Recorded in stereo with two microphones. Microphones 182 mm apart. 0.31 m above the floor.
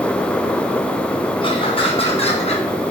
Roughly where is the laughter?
Left.